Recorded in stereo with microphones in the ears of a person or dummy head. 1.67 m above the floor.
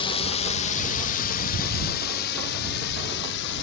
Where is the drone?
30° left (ahead or behind); by 3.6 s 65° left (ahead or behind).